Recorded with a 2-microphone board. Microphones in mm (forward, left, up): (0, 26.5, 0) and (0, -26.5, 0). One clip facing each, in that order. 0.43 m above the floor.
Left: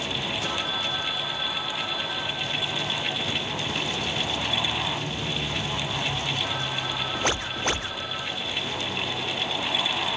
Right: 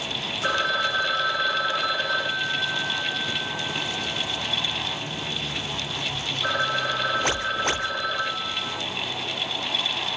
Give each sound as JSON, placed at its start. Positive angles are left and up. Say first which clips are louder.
{"t": 0.4, "sound": "a phone ringing", "louder": "right 6 dB", "side_deg": -55, "distance_m": 0.9}